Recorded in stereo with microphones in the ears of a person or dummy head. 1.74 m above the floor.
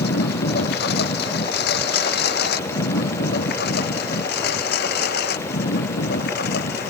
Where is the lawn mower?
65° left (ahead or behind).